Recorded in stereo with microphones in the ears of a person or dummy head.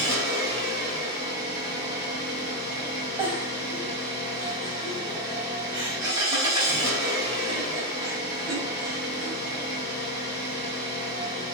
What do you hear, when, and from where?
0.0 s an engine running: 30° right (ahead or behind), 1.4 m
3.2 s a giggle: 25° right (ahead or behind), 0.6 m